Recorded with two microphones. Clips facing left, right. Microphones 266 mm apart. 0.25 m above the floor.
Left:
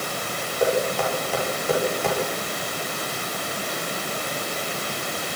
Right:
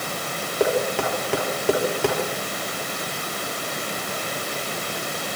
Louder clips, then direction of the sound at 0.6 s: Even; 75° right (ahead or behind).